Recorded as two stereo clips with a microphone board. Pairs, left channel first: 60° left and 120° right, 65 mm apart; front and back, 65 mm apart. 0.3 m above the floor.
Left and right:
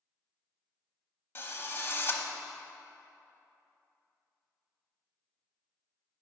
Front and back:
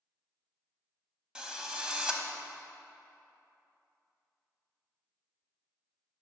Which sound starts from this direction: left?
A drill, at 1.4 s.